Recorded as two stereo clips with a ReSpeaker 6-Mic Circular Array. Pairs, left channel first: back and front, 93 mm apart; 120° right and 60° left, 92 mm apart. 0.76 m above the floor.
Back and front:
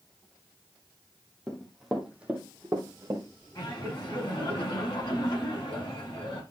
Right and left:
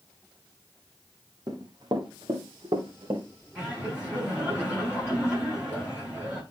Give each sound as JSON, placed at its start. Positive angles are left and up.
{"t": 1.5, "sound": "running footsteps", "azimuth_deg": 100, "distance_m": 2.0}
{"t": 3.5, "sound": "laughter", "azimuth_deg": 140, "distance_m": 6.0}